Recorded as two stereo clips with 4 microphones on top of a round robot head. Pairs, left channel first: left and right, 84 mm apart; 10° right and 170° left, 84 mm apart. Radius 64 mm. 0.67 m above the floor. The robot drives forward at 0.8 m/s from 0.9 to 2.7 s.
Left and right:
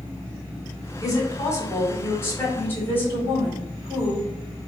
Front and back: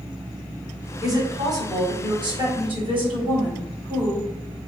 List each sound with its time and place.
1.0 s a woman speaking: 130° left, 1.9 m; by 4.3 s 155° left, 3 m